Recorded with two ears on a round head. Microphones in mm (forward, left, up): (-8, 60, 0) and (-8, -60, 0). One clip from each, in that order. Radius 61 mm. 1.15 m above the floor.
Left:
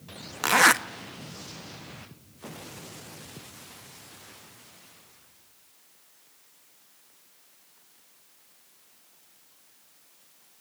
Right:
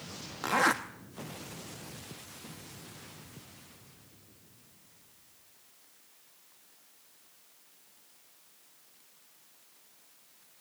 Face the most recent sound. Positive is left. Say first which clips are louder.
# left 8 dB
turn(degrees=60)  # may be behind; listen again after turning